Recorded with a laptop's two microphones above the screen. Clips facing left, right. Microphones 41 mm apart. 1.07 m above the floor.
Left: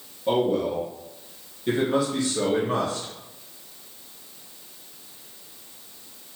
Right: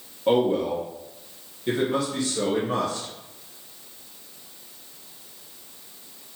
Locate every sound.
0.3 s a man speaking: 45° right (ahead or behind), 1.2 m; by 3.1 s 20° left (ahead or behind), 1.9 m